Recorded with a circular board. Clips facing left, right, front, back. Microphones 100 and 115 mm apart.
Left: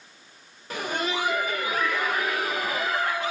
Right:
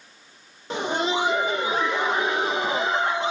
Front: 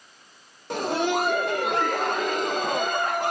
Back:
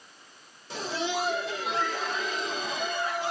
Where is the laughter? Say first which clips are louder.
Right 4 dB, front 7 dB; 25° right, 0.5 m.